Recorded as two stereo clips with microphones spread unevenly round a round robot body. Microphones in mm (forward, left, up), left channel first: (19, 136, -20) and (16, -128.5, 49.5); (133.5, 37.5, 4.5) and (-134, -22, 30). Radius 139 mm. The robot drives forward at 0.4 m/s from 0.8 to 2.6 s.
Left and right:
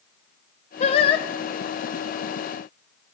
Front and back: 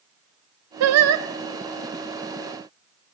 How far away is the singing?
About 0.5 m.